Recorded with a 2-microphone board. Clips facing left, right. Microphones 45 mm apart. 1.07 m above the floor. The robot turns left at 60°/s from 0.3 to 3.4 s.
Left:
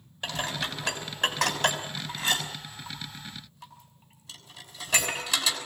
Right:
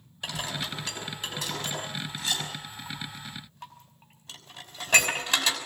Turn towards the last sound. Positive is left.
turn(degrees=-40)  # may be behind; listen again after turning